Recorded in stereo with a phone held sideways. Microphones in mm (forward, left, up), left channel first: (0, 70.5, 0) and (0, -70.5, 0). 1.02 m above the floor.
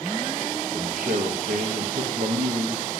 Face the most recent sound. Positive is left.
turn(degrees=-70)  # may be behind; listen again after turning